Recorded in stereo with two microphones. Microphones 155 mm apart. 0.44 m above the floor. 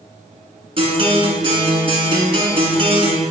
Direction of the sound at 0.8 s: 35° right (ahead or behind).